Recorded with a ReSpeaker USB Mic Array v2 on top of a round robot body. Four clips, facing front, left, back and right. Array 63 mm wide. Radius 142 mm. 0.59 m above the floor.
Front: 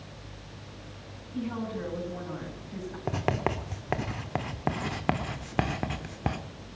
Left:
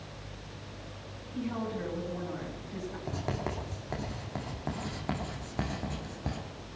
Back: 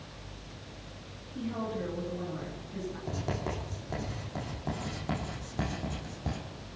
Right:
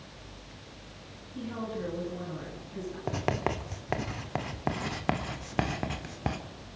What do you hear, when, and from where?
1.3 s a woman speaking: 20° left, 10 m
3.1 s writing: 30° right, 1.2 m